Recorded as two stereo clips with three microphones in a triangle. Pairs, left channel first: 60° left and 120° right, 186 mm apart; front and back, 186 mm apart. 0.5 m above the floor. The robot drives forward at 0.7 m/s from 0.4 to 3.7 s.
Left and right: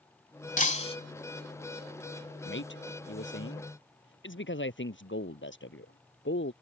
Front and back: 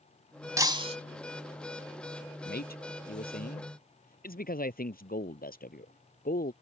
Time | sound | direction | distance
0.6 | breaking glass | 105° left | ?
2.5 | a man speaking | 40° left | ?